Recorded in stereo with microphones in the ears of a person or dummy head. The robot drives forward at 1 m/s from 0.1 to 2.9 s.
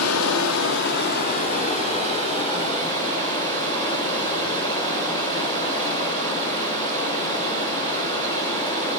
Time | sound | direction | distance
0.0 | running water | 85° left | 1.5 m